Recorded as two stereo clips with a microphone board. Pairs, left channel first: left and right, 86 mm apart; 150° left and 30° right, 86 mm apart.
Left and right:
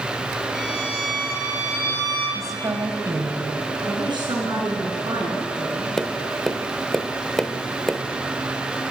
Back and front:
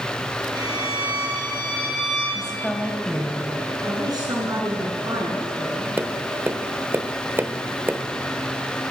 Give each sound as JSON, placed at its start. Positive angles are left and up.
{"t": 0.5, "sound": "a violin", "azimuth_deg": 0, "distance_m": 6.0}
{"t": 2.4, "sound": "a woman speaking", "azimuth_deg": -130, "distance_m": 1.9}
{"t": 3.8, "sound": "a woman speaking", "azimuth_deg": -65, "distance_m": 5.0}
{"t": 6.0, "sound": "tapping", "azimuth_deg": 10, "distance_m": 0.8}